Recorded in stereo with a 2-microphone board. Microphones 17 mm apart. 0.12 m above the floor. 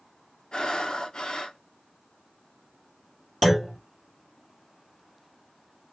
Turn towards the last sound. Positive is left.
turn(degrees=10)  # may be behind; listen again after turning